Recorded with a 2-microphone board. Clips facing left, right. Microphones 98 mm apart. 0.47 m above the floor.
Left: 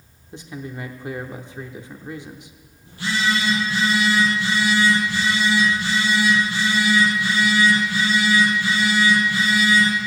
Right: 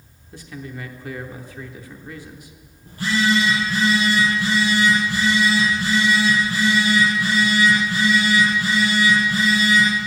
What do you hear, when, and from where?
0.3 s a man speaking: 20° left (ahead or behind), 0.8 m
2.9 s a phone buzzing: 45° right (ahead or behind), 5 m